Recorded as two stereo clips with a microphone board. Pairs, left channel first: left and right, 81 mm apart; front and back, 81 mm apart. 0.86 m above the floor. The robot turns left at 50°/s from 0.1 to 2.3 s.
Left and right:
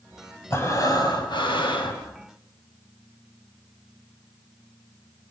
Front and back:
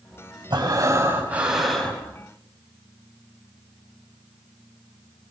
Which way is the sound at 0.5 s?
150° left.